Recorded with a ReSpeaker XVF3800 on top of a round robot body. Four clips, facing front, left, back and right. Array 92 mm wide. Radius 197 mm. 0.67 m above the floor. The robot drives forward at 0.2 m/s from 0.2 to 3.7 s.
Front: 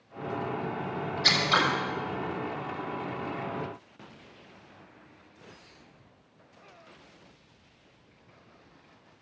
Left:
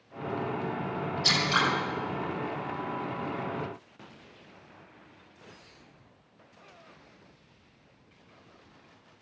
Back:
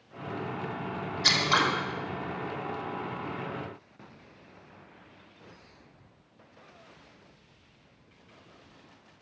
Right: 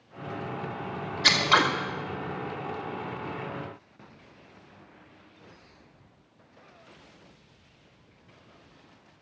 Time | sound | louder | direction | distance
1.2 | scissors | right 5 dB, even | 100° right | 2.5 m